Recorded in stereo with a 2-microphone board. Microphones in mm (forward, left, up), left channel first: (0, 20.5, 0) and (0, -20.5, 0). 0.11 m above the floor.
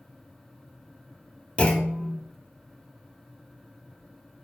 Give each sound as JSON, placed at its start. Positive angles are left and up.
{"t": 1.6, "sound": "a clunk", "side_deg": 30, "distance_m": 1.4}